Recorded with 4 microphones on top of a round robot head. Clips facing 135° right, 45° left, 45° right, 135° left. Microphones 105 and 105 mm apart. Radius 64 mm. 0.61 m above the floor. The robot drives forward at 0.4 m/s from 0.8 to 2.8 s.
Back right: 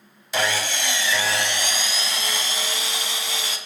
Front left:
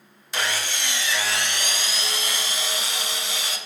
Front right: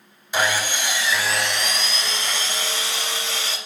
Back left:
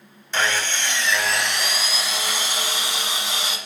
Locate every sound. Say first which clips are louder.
0.3 s sawing: back right 4 dB, front right 2 dB; 125° right, 1.0 m; by 3.6 s 150° right, 1.6 m